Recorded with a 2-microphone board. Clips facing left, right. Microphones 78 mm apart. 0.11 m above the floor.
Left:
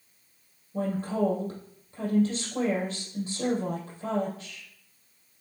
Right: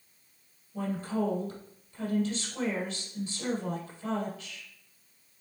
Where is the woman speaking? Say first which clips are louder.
Left 3 dB; 40° left (ahead or behind), 4 m.